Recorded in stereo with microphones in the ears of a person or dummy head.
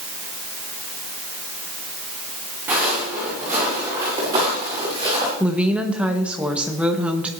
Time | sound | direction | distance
2.7 | footsteps | 15° right (ahead or behind) | 6 m
5.4 | a woman speaking | 10° right (ahead or behind) | 1.1 m